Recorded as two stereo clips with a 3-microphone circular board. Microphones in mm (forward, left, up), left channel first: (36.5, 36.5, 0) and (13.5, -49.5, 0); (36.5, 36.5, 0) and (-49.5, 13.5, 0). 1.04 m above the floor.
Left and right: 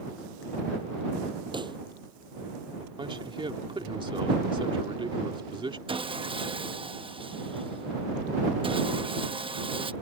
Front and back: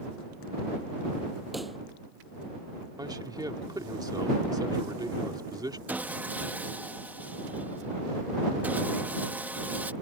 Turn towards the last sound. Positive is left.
turn(degrees=-95)